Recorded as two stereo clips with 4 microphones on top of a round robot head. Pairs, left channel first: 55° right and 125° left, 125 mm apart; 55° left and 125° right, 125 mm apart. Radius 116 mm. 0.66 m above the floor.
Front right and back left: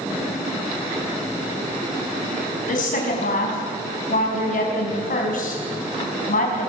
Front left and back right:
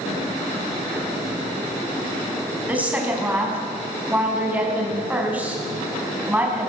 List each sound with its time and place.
2.7 s a woman speaking: 45° right, 6 m